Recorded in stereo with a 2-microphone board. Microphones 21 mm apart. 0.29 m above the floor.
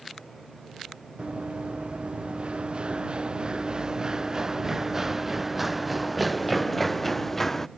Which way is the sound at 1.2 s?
75° right (ahead or behind).